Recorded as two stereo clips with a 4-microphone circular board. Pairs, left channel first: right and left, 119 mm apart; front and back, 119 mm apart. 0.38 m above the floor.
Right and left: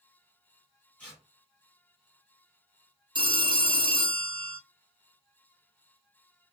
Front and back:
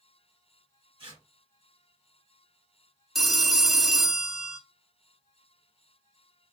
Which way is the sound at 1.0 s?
165° right.